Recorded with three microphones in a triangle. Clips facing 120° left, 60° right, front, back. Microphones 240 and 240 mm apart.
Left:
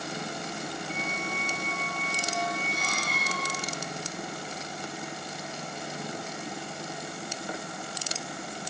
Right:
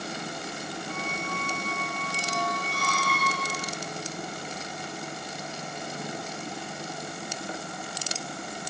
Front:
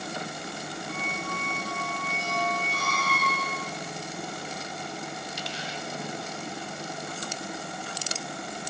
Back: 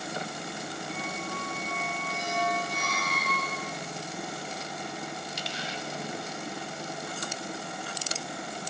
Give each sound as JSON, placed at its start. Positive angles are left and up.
{"t": 0.9, "sound": "a squeak", "azimuth_deg": 140, "distance_m": 0.6}